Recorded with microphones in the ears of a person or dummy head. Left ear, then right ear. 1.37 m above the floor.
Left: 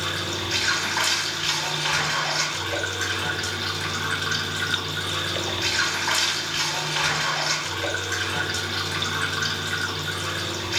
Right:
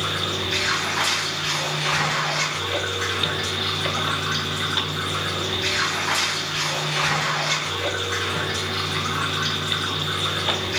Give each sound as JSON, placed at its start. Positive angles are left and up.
{"t": 0.0, "sound": "running water", "side_deg": 15, "distance_m": 2.0}